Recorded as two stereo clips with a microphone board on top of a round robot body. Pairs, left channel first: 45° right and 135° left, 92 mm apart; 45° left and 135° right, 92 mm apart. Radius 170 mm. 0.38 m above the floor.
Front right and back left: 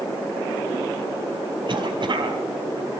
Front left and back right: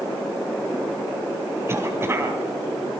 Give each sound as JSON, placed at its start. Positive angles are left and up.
{"t": 1.7, "sound": "a cough", "azimuth_deg": 165, "distance_m": 4.5}